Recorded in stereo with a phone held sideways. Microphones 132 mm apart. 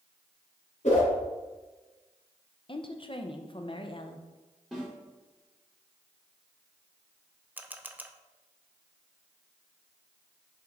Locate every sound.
0.8 s a whoosh: 60° left (ahead or behind), 3 m
2.7 s a woman speaking: 40° left (ahead or behind), 0.7 m
4.7 s a snare drum: 5° left (ahead or behind), 3 m
7.6 s a camera shutter: 15° right (ahead or behind), 0.5 m